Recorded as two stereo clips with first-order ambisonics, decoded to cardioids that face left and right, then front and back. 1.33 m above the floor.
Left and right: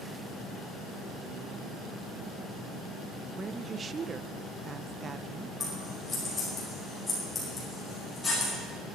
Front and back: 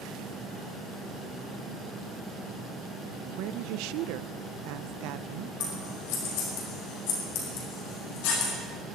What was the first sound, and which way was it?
A woman speaking, 160° right.